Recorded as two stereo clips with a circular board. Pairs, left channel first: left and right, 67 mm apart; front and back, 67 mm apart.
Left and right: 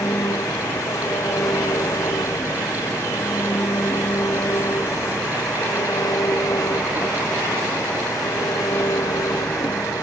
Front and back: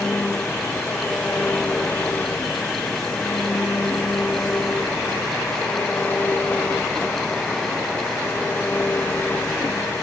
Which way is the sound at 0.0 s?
65° left.